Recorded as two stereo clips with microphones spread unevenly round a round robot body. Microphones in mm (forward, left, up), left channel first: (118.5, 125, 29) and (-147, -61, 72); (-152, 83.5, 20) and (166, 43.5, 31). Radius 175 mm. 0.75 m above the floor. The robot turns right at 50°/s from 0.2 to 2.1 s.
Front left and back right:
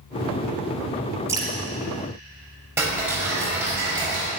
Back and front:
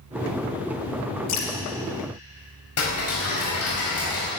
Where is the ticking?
130° left, 5 m.